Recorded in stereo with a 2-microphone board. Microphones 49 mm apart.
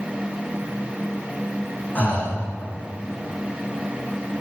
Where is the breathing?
35° left (ahead or behind), 5 m.